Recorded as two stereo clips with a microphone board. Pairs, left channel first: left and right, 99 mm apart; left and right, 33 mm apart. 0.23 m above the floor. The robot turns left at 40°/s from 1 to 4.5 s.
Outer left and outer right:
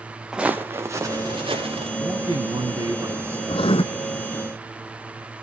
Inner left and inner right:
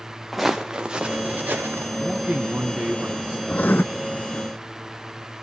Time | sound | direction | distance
0.3 | footsteps | 5° right (ahead or behind) | 1.3 m
2.0 | a man speaking | 100° right | 3.5 m
3.5 | writing | 60° left (ahead or behind) | 0.6 m